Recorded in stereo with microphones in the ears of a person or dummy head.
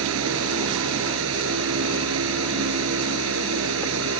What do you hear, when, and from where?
0.0 s a fan: 85° right